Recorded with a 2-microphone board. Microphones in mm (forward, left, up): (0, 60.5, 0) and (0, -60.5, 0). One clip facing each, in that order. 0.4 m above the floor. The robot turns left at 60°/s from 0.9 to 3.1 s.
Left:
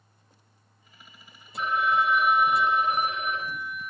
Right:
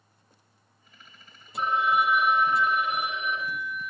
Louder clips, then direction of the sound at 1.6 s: Right 1 dB; 140° right.